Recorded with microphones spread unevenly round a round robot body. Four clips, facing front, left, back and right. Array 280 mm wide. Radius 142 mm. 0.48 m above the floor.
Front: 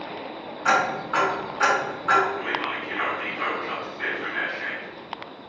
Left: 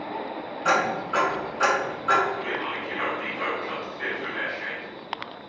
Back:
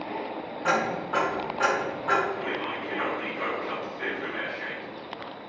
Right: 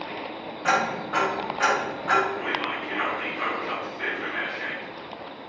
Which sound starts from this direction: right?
Whispering, at 2.4 s.